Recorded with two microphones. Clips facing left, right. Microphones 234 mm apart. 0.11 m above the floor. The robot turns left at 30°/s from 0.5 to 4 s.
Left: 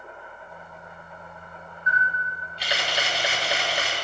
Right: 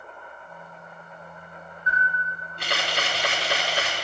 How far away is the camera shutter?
About 5.5 m.